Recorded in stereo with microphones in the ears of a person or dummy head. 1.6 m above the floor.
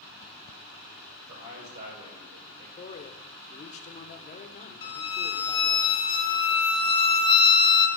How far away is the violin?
About 1.0 m.